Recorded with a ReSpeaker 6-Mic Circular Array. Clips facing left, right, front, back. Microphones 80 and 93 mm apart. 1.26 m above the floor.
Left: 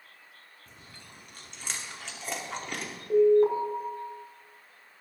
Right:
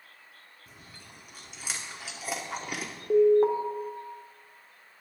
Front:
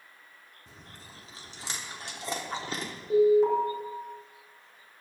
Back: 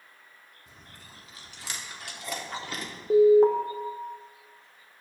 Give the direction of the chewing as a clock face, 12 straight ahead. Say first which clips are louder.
Even, front 2 dB; 12 o'clock.